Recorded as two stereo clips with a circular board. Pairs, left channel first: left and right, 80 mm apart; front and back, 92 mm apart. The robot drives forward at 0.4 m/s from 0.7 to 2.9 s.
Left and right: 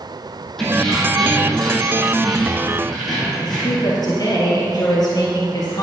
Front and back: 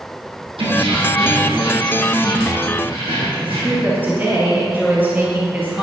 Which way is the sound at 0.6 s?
175° left.